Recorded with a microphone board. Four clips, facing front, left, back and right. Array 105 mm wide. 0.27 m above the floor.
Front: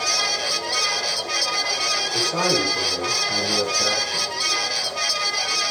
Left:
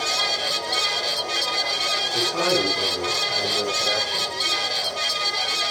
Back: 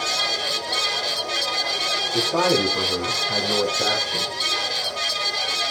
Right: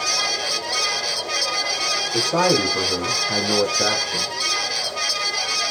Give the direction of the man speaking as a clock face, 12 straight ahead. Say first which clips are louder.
Right 4 dB, back 3 dB; 3 o'clock.